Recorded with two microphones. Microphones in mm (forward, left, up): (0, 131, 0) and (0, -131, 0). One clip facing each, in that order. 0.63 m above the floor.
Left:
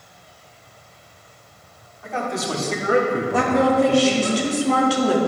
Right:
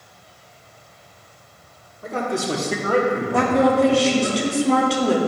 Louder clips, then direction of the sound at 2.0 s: Right 3 dB; 45° right (ahead or behind).